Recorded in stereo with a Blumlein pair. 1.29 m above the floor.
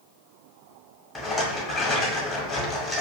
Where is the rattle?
15° left, 0.9 m.